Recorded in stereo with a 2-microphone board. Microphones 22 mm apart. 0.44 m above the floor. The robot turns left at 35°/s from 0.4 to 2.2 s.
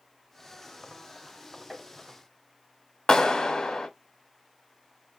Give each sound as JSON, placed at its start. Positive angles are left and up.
{"t": 1.7, "sound": "tapping", "side_deg": -5, "distance_m": 1.6}
{"t": 3.1, "sound": "a clap", "side_deg": 35, "distance_m": 0.9}